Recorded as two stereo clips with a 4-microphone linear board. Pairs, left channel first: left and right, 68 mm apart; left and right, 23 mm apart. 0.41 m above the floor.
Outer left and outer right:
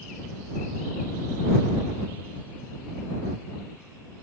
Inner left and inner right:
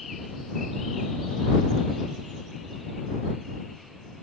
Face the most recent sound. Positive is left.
No sound to turn to.